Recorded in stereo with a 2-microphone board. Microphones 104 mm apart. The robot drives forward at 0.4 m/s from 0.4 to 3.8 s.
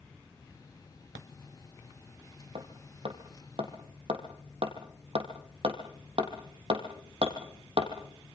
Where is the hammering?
70° right (ahead or behind), 3 m; by 7.9 s 60° right (ahead or behind), 3.5 m.